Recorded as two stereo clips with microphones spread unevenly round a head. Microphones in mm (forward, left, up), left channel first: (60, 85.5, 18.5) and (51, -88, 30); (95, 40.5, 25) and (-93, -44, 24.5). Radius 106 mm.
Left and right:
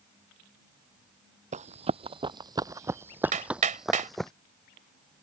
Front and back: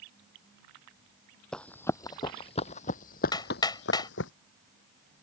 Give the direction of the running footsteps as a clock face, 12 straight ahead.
2 o'clock.